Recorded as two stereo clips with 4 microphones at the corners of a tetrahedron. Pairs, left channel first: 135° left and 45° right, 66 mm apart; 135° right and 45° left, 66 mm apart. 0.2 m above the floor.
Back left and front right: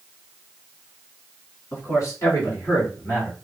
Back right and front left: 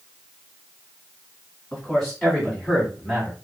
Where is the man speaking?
155° left, 1.9 m; by 3.3 s 110° left, 1.4 m.